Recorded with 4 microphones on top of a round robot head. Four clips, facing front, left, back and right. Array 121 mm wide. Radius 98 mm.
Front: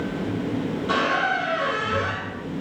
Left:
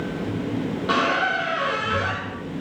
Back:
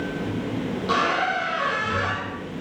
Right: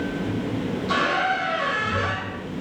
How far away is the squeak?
About 9.5 m.